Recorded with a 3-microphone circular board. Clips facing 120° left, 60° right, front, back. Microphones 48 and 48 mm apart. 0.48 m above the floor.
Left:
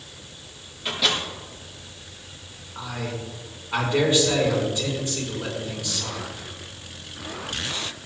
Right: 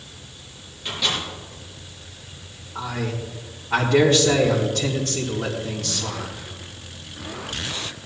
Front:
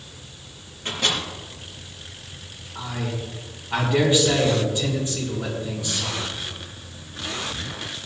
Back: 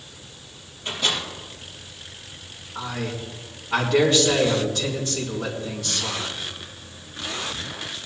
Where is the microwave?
35° left, 6.5 m.